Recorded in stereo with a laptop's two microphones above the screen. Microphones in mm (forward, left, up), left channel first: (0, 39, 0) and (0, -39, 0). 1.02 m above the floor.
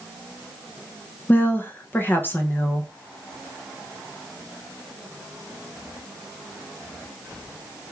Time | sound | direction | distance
1.3 | a woman speaking | 25° left (ahead or behind) | 0.6 m